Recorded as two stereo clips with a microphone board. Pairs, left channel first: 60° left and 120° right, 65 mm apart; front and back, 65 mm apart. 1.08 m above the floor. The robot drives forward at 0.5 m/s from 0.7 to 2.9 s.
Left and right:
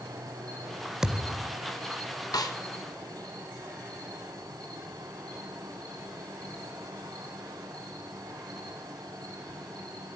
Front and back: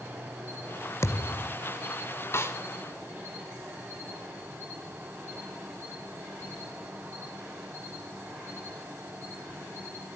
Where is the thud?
40° right, 1.7 m; by 1.6 s 45° right, 1.5 m.